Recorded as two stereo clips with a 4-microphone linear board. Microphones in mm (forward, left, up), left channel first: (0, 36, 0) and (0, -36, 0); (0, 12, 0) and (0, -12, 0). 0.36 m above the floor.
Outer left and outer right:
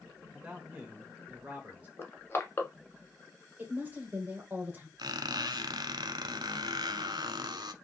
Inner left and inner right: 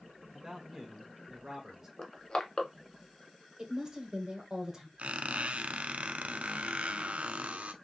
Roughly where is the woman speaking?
Right.